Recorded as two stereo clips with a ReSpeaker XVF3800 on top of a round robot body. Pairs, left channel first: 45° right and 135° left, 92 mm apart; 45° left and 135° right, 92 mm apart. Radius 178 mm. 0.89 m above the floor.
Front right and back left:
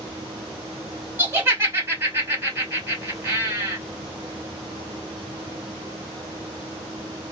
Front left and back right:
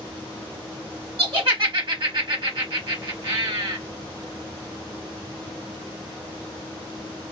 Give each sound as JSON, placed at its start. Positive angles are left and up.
{"t": 1.2, "sound": "laughter", "azimuth_deg": -170, "distance_m": 1.3}